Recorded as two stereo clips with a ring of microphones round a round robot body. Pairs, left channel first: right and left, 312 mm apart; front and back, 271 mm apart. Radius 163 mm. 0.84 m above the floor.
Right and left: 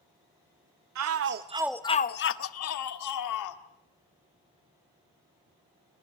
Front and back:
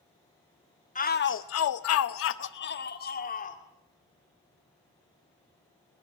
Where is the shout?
60° left, 0.9 m; by 3.6 s 65° right, 2 m.